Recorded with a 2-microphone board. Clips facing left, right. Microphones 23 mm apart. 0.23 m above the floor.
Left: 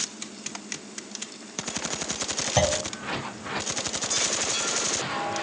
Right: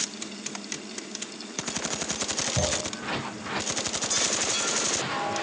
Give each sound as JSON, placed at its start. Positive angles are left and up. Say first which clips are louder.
{"t": 2.6, "sound": "a clunk", "louder": "left 7 dB", "side_deg": 70, "distance_m": 2.0}